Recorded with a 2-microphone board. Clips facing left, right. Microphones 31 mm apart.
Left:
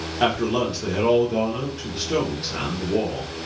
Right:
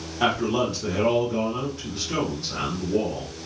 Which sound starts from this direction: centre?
A man speaking, at 0.2 s.